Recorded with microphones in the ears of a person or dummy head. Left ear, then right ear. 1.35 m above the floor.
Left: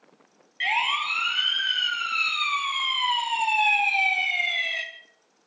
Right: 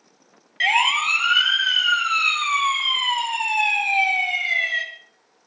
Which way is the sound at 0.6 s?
35° right (ahead or behind).